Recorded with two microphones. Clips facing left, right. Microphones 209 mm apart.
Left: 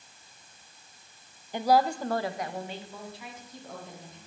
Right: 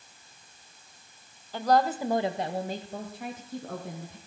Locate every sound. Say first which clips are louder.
1.5 s a woman speaking: even; 20° left (ahead or behind), 0.9 m; by 4.2 s 65° right (ahead or behind), 2.5 m